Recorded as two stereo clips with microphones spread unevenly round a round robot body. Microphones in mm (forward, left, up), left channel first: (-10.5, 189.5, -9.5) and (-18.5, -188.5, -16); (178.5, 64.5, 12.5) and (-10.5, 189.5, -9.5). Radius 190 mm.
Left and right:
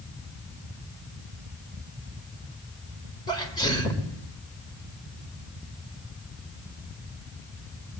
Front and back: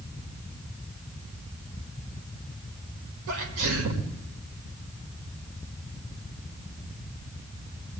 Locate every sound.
3.3 s a sneeze: 170° left, 2 m